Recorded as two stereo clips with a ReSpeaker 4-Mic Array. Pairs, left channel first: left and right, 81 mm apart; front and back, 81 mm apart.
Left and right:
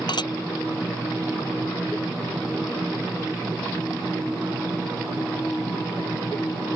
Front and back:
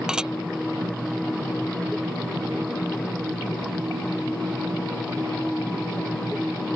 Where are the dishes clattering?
100° left.